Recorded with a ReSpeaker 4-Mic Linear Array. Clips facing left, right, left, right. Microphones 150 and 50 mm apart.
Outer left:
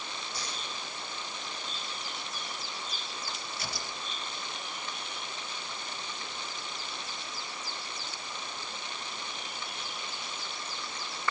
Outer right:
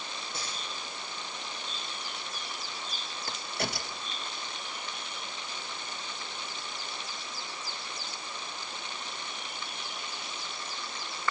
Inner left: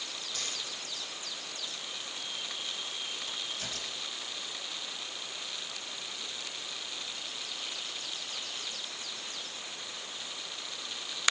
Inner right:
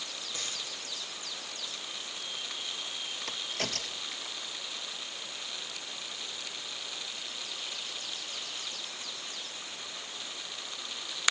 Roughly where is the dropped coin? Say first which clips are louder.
Even, even; right.